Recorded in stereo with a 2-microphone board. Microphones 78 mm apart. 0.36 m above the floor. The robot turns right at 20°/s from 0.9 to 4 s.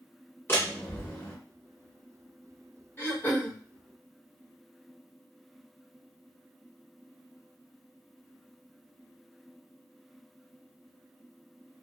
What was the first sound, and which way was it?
A door slam, 30° left (ahead or behind).